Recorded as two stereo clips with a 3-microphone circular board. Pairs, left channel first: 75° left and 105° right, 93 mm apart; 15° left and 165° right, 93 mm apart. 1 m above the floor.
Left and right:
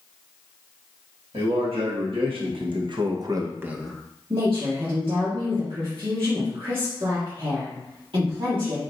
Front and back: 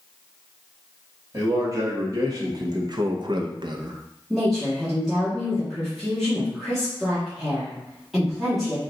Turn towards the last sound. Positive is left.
turn(degrees=-80)